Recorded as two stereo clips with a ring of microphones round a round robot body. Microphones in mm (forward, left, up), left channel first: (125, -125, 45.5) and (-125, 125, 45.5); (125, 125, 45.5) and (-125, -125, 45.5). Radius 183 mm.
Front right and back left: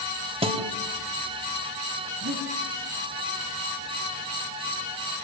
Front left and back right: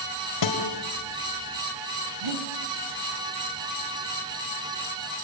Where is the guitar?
60° left, 2.5 m.